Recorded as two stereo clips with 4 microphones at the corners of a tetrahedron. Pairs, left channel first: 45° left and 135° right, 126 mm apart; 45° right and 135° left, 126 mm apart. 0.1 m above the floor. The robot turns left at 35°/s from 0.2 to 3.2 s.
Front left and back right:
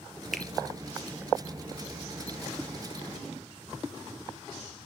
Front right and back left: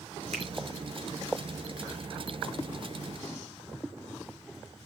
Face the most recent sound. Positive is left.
turn(degrees=35)